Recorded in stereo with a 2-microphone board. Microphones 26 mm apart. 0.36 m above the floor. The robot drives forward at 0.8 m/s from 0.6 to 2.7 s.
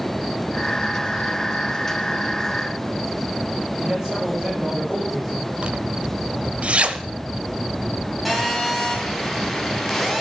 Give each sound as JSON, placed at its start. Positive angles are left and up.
{"t": 3.8, "sound": "a man speaking", "side_deg": -25, "distance_m": 7.5}
{"t": 5.6, "sound": "a zipper", "side_deg": -50, "distance_m": 0.9}
{"t": 8.2, "sound": "a phone buzzing", "side_deg": 0, "distance_m": 3.5}